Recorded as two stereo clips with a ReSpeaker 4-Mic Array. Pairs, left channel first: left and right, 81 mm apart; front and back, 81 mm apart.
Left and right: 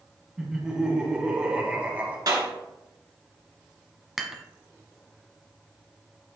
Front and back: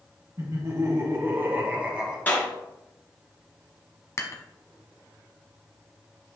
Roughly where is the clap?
Ahead right.